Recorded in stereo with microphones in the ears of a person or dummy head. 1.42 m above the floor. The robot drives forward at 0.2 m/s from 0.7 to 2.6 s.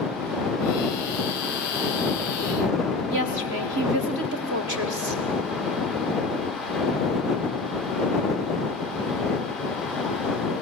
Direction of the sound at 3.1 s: 50° right (ahead or behind).